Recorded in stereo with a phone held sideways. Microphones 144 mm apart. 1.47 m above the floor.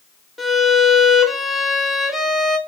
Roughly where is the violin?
Centre.